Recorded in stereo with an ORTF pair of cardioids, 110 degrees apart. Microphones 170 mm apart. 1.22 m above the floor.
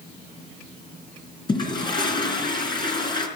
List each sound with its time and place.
1.5 s a toilet flushing: 30° left, 4 m